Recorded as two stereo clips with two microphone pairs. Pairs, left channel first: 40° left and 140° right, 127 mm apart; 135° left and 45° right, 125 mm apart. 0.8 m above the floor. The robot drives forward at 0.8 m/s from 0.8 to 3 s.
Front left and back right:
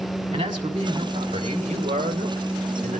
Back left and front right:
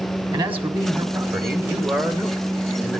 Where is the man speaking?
95° right, 2 m; by 3.0 s 130° right, 3 m.